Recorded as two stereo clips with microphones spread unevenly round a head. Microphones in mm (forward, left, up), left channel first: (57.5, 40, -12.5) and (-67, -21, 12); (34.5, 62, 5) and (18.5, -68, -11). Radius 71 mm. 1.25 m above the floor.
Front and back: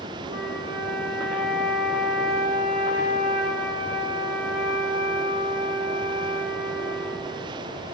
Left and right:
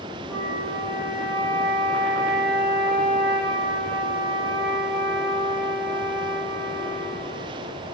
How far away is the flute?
About 7.5 m.